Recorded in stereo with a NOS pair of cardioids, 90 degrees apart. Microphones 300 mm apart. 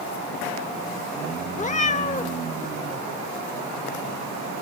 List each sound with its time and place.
1.6 s a cat meowing: 25° left, 1.3 m